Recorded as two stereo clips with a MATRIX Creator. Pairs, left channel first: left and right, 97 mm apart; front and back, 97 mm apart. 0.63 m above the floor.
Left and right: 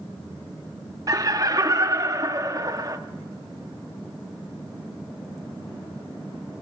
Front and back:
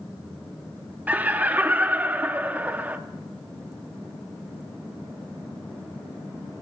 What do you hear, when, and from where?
1.1 s laughter: 115° right, 0.7 m